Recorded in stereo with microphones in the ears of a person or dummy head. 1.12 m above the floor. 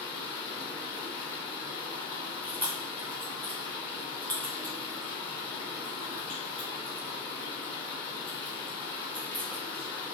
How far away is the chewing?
About 0.6 m.